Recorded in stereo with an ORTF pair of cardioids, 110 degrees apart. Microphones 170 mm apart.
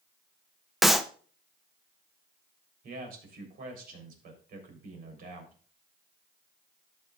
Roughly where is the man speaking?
Ahead right.